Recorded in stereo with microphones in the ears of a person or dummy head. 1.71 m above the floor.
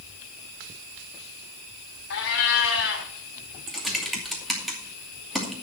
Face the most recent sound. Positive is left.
turn(degrees=-5)  # may be behind; listen again after turning